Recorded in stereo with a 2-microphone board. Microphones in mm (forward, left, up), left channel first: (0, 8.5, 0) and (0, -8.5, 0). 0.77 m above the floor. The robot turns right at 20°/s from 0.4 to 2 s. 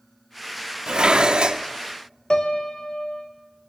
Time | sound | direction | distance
0.9 | dishes clattering | 60° right (ahead or behind) | 1.0 m
2.3 | a piano | 60° left (ahead or behind) | 1.3 m